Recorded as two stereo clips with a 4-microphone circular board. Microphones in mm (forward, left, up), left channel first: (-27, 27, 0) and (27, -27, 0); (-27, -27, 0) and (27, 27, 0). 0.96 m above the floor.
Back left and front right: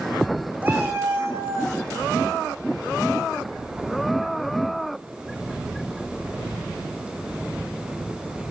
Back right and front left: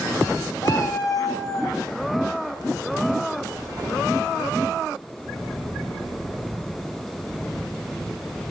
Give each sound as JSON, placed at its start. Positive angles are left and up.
{"t": 0.6, "sound": "a cat meowing", "azimuth_deg": -110, "distance_m": 1.8}